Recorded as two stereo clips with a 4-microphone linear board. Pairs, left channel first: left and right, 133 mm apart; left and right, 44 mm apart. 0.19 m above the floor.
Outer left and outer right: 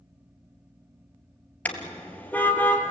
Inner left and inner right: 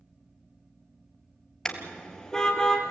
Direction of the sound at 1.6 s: 10° left (ahead or behind).